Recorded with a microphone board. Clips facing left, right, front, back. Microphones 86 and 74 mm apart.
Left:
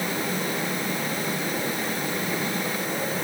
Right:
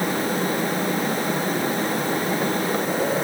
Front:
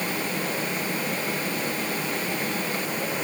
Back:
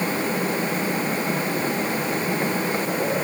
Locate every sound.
Only background noise.